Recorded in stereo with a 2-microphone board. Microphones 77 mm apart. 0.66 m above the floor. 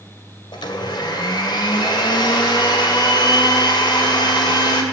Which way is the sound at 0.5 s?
80° left.